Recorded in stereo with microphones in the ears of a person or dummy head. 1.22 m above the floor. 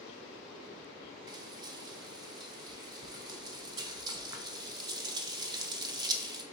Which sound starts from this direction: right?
Frying, at 1.3 s.